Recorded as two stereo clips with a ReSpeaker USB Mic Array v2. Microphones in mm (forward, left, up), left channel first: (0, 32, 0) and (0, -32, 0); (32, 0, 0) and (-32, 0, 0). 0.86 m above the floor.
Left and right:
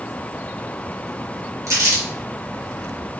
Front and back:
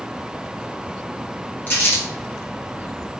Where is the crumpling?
60° right, 1.3 m.